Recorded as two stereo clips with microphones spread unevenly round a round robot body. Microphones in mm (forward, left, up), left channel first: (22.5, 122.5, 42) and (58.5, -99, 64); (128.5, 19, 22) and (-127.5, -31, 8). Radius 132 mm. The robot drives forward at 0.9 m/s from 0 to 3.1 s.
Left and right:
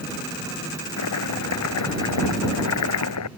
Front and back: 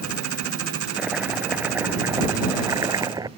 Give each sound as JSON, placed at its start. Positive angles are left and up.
{"t": 1.0, "sound": "chopping", "azimuth_deg": 105}